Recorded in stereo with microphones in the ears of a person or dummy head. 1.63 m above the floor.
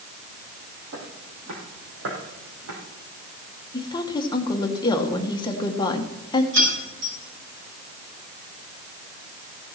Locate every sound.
0.9 s footsteps: 60° right (ahead or behind), 3.5 m; by 2.8 s 70° right (ahead or behind), 4.5 m
3.7 s a woman speaking: 20° left (ahead or behind), 1.7 m
6.5 s keys jangling: 65° right (ahead or behind), 5.5 m